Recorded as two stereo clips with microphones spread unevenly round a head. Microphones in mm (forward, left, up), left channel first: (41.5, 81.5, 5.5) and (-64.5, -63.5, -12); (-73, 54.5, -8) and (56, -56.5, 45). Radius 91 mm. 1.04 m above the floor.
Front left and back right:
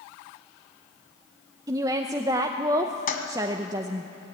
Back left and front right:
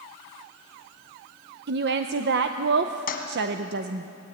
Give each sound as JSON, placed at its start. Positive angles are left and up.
{"t": 1.7, "sound": "a woman speaking", "azimuth_deg": -65, "distance_m": 0.7}
{"t": 3.1, "sound": "a toilet flushing", "azimuth_deg": 90, "distance_m": 2.0}